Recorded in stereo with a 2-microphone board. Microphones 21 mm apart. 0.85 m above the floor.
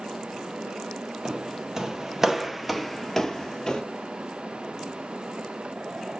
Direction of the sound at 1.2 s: 35° right (ahead or behind).